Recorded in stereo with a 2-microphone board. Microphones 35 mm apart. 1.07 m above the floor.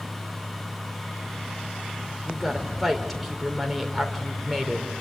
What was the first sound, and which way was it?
A woman speaking, centre (ahead or behind).